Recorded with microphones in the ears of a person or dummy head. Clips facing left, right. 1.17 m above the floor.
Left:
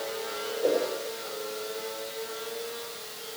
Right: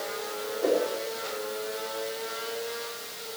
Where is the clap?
No clap in this recording.